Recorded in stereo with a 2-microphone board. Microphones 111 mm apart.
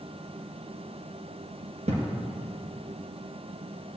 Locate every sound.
1.9 s a thud: 75° right (ahead or behind), 2 m